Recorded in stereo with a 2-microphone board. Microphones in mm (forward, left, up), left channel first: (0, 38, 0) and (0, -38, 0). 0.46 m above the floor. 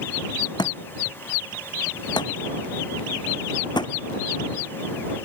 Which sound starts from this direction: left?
A thud, at 0.6 s.